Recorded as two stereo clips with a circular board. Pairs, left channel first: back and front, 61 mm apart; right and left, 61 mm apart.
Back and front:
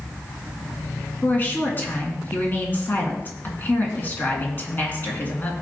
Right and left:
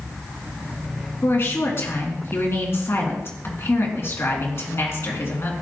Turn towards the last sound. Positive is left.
turn(degrees=-130)